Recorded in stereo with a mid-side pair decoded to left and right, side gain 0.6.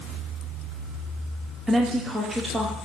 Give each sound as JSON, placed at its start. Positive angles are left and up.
{"t": 1.7, "sound": "a woman speaking", "azimuth_deg": -15, "distance_m": 1.1}